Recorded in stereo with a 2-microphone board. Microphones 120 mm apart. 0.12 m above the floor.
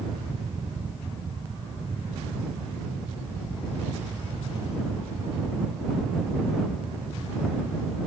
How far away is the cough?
I don't hear a cough.